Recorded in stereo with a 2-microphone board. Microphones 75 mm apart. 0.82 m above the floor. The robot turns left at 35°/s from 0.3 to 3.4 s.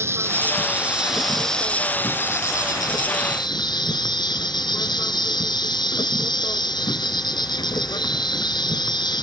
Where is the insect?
145° right; by 9.2 s 105° left.